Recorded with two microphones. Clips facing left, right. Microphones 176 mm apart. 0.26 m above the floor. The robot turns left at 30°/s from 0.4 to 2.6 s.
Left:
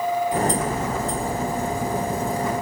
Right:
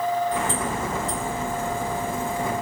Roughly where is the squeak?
No squeak in this recording.